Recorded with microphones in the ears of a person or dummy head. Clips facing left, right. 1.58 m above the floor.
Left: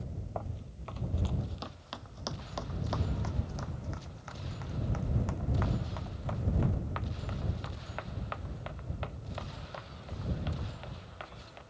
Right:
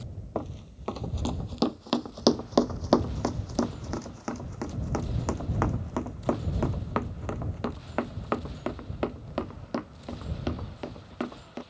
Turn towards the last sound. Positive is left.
turn(degrees=-55)  # may be behind; listen again after turning